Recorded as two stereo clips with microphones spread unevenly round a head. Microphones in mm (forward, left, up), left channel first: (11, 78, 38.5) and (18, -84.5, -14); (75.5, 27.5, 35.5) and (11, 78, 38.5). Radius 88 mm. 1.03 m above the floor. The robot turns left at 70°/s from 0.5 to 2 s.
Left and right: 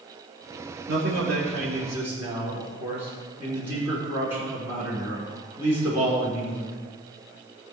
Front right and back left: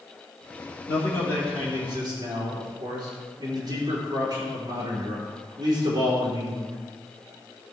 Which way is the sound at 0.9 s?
80° right.